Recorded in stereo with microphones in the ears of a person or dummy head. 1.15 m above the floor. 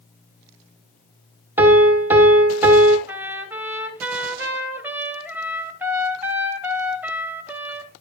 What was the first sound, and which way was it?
A piano, 10° right (ahead or behind).